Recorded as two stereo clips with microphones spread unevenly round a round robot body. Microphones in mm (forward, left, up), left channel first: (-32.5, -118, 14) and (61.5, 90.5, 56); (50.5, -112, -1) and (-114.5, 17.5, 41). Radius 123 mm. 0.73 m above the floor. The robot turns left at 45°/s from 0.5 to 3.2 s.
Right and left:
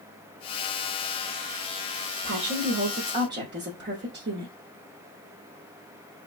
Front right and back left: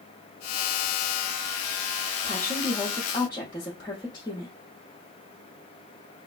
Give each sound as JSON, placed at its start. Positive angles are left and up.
{"t": 2.2, "sound": "a woman speaking", "azimuth_deg": 70, "distance_m": 1.0}